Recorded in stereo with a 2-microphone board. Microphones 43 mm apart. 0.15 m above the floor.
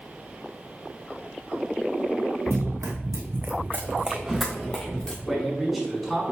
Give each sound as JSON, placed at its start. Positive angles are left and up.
{"t": 2.5, "sound": "running footsteps", "side_deg": -80, "distance_m": 1.0}
{"t": 5.2, "sound": "a man speaking", "side_deg": 0, "distance_m": 1.4}